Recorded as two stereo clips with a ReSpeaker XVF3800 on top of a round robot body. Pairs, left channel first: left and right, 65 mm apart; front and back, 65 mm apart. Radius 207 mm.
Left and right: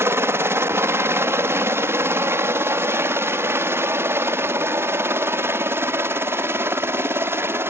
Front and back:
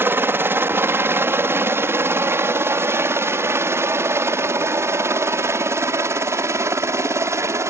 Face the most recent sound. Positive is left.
turn(degrees=-140)